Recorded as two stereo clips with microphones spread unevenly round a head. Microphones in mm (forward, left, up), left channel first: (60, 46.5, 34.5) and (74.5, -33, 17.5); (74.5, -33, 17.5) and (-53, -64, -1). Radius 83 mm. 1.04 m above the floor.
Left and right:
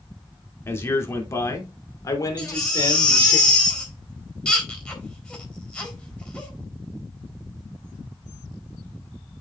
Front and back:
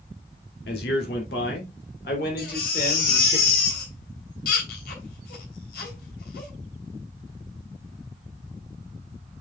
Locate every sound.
0.7 s a man speaking: 40° left, 2.5 m; by 3.4 s 65° left, 3.5 m
2.4 s a baby crying: 25° left, 3.5 m